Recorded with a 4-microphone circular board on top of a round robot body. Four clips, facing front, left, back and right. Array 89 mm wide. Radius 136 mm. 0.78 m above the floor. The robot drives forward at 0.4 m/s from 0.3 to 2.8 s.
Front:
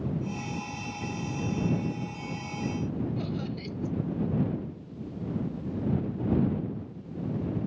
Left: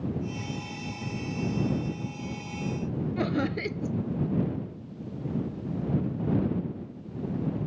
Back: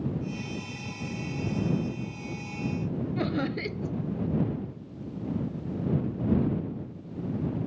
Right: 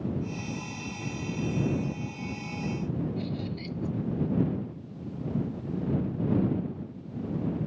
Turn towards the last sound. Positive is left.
turn(degrees=120)